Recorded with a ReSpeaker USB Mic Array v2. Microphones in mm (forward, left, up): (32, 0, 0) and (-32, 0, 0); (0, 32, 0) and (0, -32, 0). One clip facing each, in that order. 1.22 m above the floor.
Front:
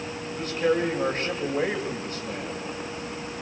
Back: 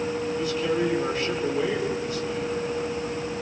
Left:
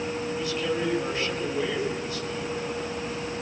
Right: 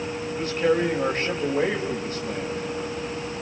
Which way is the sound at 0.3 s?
40° right.